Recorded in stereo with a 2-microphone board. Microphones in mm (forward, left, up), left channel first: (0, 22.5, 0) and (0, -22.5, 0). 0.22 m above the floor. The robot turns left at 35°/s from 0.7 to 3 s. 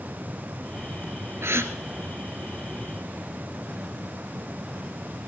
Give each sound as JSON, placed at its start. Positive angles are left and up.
{"t": 1.4, "sound": "a gasp", "side_deg": -70, "distance_m": 1.0}